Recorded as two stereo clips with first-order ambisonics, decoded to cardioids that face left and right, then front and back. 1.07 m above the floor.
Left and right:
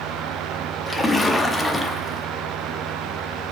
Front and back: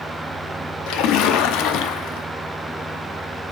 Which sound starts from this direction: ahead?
A splash, at 0.9 s.